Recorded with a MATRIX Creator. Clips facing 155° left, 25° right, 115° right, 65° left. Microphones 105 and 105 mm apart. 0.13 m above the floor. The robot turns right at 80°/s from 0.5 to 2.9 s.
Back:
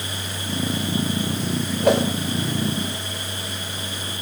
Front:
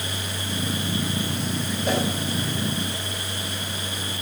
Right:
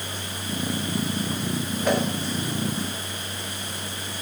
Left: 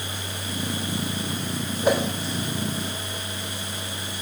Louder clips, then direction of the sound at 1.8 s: Back 7 dB, left 2 dB; 140° left.